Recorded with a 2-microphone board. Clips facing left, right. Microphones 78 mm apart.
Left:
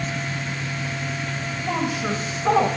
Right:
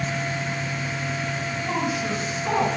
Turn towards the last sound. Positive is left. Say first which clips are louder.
# left 2 dB
turn(degrees=85)